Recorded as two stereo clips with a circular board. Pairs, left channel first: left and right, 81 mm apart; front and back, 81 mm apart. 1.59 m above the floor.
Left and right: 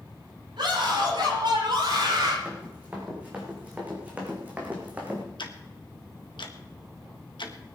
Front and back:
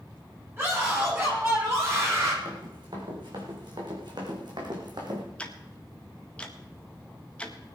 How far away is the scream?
About 10 m.